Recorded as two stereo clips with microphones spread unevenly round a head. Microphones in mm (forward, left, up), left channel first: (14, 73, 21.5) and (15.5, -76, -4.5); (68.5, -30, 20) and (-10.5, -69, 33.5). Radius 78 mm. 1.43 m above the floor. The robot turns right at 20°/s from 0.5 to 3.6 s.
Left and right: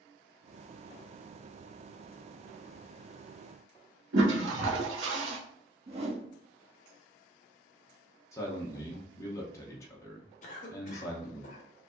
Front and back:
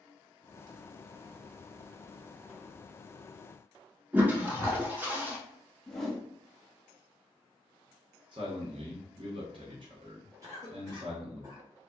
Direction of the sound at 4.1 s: 85° right.